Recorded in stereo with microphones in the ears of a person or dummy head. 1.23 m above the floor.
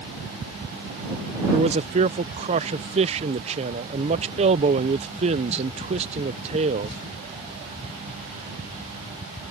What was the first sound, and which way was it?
A man speaking, 30° right (ahead or behind).